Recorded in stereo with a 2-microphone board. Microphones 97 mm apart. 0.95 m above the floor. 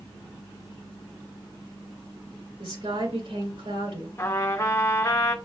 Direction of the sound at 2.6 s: 80° right.